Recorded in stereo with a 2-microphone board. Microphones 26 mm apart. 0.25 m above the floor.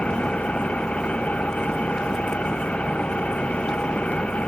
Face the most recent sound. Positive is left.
turn(degrees=55)  # may be behind; listen again after turning